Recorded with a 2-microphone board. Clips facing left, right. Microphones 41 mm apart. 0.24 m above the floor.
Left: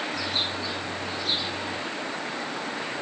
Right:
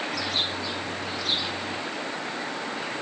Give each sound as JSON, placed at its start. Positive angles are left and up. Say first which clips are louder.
{"t": 0.1, "sound": "a bird", "louder": "even", "side_deg": -75, "distance_m": 4.5}